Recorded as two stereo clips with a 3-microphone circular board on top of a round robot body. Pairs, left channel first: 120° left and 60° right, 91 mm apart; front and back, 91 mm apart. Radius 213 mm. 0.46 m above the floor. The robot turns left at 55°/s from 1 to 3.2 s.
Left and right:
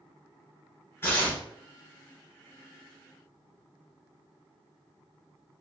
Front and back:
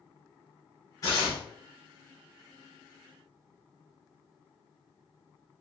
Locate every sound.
1.0 s tearing paper: 55° left, 0.5 m; by 1.4 s 35° left, 0.5 m